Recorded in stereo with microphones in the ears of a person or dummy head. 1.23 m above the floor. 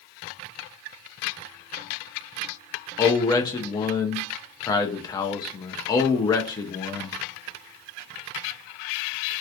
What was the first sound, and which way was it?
A man speaking, 20° left (ahead or behind).